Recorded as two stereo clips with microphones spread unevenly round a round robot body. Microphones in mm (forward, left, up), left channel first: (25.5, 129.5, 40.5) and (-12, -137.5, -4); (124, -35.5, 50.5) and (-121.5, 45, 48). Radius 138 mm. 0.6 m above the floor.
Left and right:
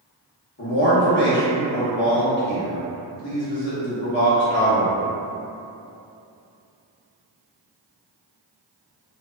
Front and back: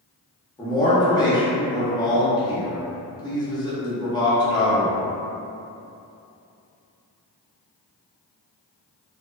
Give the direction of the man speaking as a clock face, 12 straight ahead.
10 o'clock.